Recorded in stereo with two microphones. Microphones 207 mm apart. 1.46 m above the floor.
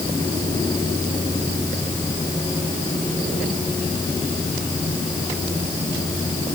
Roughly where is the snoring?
No snoring in this recording.